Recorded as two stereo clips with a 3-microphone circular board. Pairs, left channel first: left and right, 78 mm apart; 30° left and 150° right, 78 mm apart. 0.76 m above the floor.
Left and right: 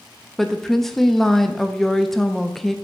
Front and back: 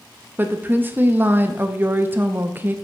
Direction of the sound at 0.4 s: 170° left.